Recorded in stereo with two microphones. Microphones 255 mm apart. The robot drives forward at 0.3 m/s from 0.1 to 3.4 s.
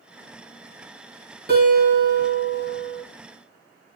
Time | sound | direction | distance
1.5 | a guitar | 40° right (ahead or behind) | 2.5 m